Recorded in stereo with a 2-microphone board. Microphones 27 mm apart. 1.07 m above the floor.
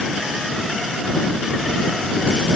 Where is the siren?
I don't hear a siren.